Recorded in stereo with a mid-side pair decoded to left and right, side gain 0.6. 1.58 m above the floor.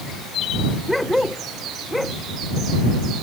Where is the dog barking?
5° left.